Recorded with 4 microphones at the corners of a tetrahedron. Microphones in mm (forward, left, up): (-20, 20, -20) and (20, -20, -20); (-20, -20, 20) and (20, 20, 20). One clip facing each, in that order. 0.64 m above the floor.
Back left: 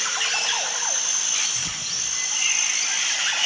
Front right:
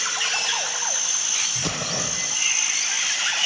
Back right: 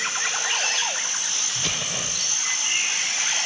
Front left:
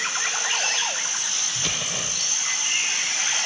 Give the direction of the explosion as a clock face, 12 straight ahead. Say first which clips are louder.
Front right 6 dB, even; 1 o'clock.